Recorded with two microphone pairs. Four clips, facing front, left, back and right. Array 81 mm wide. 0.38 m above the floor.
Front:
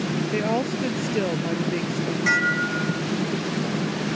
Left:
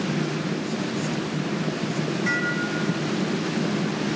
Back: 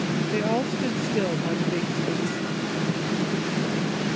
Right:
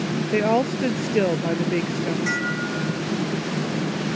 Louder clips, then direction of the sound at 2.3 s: Even, front 6 dB; straight ahead.